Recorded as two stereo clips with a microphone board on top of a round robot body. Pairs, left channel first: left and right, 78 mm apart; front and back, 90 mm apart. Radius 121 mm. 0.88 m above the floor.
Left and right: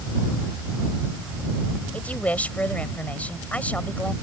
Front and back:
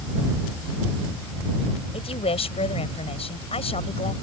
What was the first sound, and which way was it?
A woman speaking, 15° left.